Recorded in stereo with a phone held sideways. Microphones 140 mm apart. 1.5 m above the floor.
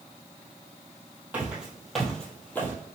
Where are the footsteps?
10° right (ahead or behind), 2.0 m; by 2.7 s 15° left (ahead or behind), 1.9 m.